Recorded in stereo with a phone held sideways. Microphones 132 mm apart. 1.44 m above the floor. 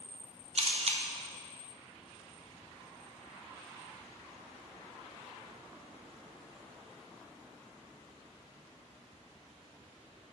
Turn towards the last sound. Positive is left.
turn(degrees=-55)  # may be behind; listen again after turning